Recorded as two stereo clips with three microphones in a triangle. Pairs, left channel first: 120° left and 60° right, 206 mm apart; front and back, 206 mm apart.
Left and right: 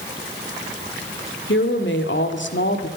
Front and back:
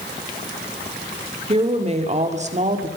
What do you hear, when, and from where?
1.5 s a woman speaking: 120° left, 3 m; by 2.9 s 130° left, 2 m